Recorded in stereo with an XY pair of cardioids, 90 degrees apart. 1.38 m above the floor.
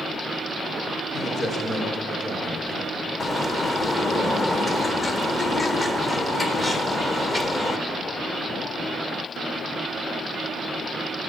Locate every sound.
1.1 s a man speaking: 45° left, 5 m
3.2 s a bird: 35° left, 1.0 m